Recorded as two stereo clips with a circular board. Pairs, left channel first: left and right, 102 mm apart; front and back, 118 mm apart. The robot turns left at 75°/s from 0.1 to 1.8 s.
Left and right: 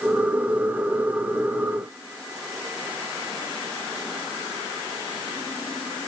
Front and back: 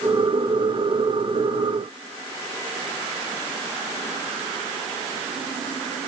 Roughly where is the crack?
I don't hear a crack.